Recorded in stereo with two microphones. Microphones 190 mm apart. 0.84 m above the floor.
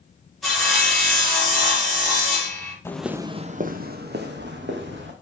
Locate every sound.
0.4 s sawing: centre (ahead or behind), 4 m
2.9 s footsteps: 15° left (ahead or behind), 0.9 m; by 5.1 s 75° right (ahead or behind), 3 m